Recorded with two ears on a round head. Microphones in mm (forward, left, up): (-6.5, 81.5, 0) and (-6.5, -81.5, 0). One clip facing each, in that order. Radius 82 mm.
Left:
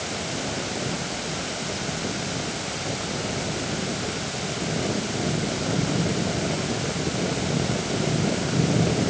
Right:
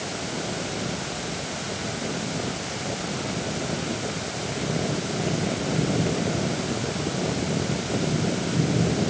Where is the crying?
I don't hear crying.